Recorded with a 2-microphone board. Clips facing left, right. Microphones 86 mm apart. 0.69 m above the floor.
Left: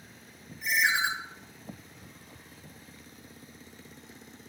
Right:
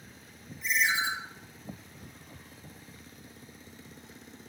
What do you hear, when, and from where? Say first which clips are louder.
0.6 s a ringtone: left 2 dB; 55° left (ahead or behind), 0.6 m